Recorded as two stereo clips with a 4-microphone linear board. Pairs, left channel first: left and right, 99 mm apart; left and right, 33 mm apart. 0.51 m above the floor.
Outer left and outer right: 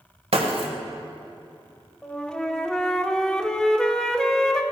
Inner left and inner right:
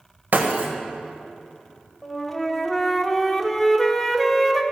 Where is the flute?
5° left (ahead or behind), 0.7 m.